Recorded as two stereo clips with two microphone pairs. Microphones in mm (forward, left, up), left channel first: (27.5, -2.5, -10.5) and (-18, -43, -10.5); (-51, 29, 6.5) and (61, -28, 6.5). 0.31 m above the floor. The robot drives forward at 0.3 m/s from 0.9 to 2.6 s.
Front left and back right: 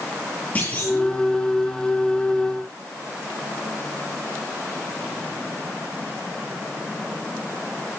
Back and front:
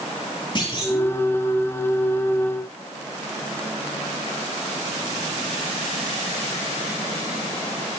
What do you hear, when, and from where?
0.6 s a clunk: 100° left, 8 m